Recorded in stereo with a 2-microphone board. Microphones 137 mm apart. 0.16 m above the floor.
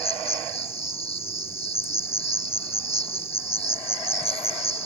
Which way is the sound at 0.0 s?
50° left (ahead or behind).